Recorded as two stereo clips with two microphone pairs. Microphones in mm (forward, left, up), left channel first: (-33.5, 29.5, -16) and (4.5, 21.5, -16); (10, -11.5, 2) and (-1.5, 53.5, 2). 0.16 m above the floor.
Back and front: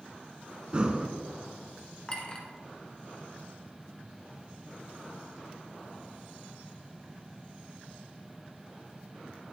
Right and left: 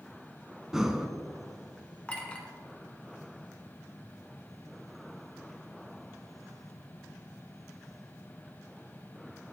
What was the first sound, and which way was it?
Breathing, 25° left.